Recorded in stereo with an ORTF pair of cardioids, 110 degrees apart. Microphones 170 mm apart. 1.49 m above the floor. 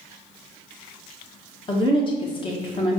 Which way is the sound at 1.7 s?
30° left.